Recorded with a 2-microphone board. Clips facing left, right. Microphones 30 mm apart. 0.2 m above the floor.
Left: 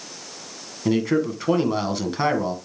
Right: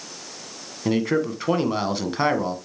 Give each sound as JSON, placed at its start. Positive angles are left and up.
{"t": 0.8, "sound": "a man speaking", "side_deg": -10, "distance_m": 1.4}